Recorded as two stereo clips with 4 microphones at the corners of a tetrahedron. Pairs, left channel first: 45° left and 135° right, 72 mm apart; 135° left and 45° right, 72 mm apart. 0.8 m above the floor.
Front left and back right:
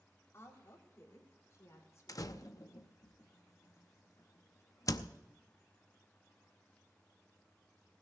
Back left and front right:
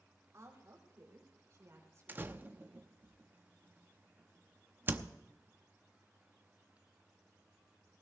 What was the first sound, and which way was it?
A woman speaking, 5° right.